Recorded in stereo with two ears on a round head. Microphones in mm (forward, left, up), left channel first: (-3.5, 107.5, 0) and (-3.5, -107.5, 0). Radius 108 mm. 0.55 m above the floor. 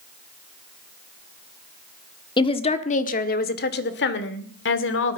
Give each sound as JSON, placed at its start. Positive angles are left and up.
{"t": 2.4, "sound": "a woman speaking", "side_deg": 20, "distance_m": 1.3}